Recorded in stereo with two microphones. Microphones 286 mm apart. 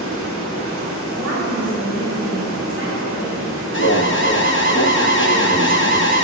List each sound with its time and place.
0.0 s running water: 50° right (ahead or behind), 1.9 m
1.1 s a woman speaking: 45° right (ahead or behind), 2 m
3.7 s an alarm: 45° left (ahead or behind), 0.7 m